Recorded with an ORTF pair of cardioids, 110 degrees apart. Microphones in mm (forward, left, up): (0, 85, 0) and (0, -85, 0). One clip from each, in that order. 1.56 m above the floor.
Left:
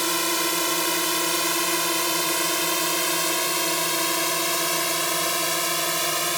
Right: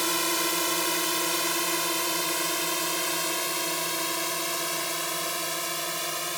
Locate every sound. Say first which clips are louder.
0.0 s a drone: left 3 dB; 15° left; by 6.4 s 40° left